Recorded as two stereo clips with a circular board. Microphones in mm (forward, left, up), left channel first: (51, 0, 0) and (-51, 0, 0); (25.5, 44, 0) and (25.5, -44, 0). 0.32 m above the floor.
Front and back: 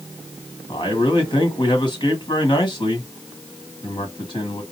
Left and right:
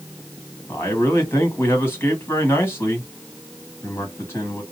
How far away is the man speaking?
About 1.9 m.